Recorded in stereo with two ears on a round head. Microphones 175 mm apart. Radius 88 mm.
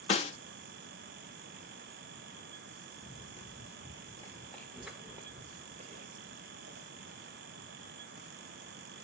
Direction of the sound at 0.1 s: 30° left (ahead or behind).